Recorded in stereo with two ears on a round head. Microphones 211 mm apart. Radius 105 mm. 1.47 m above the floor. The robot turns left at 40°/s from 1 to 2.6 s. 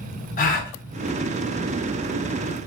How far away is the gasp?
About 0.6 m.